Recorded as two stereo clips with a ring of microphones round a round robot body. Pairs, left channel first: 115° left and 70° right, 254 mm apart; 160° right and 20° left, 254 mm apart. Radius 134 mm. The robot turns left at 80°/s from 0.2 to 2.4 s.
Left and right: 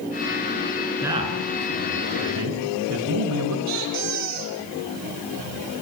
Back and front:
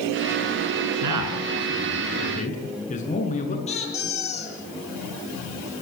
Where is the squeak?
90° right, 8.5 m.